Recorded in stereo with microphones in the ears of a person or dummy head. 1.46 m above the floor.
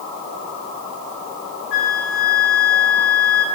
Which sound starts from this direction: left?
A flute, at 1.7 s.